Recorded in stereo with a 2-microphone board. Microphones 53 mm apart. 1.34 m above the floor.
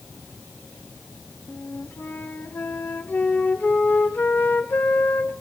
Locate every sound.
1.5 s a flute: 35° left (ahead or behind), 1.1 m